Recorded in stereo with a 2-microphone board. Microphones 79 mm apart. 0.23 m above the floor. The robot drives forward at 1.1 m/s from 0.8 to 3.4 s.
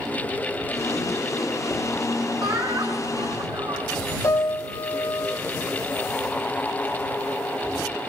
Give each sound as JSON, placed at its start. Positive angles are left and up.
{"t": 2.4, "sound": "laughter", "side_deg": -60, "distance_m": 2.0}
{"t": 4.2, "sound": "a piano", "side_deg": 50, "distance_m": 4.0}